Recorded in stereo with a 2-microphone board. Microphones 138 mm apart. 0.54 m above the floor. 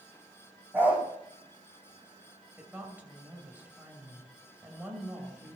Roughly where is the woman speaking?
Centre.